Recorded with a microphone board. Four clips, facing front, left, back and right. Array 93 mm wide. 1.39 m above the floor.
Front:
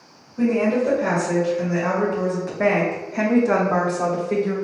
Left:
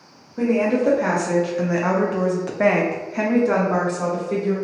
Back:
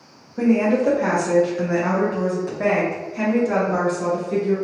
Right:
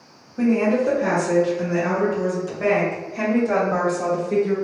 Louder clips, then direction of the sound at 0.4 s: Even, back 2 dB; 130° left.